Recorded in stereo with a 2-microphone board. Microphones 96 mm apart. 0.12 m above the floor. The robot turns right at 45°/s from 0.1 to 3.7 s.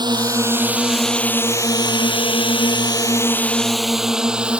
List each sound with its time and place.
0.0 s a drone: 50° right (ahead or behind); by 4.6 s 10° right (ahead or behind)